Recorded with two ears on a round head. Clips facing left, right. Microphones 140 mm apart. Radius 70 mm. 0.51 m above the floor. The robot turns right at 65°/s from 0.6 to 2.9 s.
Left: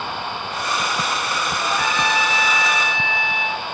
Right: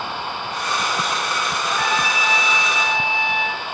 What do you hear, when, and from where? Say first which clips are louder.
1.6 s a trumpet: left 1 dB; 160° left, 1.2 m; by 3.6 s 115° right, 1.2 m